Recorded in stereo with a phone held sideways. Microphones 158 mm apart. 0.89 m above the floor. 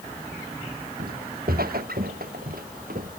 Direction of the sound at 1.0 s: 80° right.